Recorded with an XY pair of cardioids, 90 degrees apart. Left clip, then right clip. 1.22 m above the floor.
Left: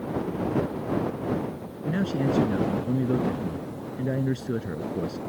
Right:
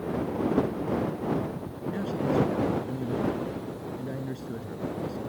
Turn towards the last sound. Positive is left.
turn(degrees=60)